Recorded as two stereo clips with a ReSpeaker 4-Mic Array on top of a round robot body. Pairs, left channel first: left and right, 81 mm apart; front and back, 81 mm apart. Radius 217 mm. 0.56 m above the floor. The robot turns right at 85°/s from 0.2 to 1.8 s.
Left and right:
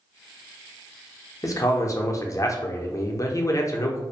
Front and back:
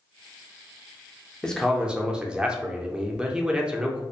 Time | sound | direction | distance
1.4 | a man speaking | 75° left | 0.7 m